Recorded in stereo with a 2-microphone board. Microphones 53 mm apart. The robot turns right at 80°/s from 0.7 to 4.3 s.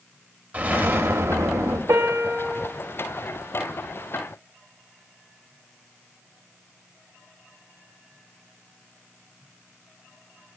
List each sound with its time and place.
0.5 s an explosion: 150° right, 0.6 m; by 1.8 s 60° right, 0.6 m
1.9 s a piano: 75° right, 0.5 m; by 2.7 s 10° right, 0.5 m